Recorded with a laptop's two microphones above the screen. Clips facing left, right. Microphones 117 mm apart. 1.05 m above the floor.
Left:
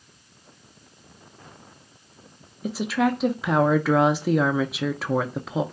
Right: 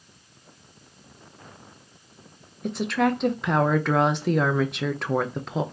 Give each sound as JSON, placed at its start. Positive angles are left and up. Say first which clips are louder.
{"t": 2.6, "sound": "a woman speaking", "louder": "even", "side_deg": 5, "distance_m": 0.5}